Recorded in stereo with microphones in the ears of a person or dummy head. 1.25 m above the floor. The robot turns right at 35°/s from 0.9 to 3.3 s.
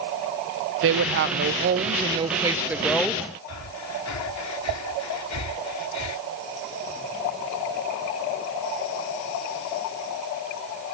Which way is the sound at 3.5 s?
80° left.